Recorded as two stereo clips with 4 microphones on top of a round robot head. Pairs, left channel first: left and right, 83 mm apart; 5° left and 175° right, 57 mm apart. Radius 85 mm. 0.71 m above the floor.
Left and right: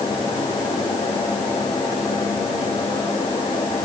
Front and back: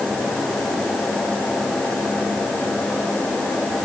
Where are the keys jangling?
I don't hear keys jangling.